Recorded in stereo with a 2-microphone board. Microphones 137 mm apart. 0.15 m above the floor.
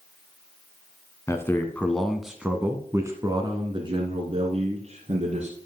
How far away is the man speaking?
About 1.3 m.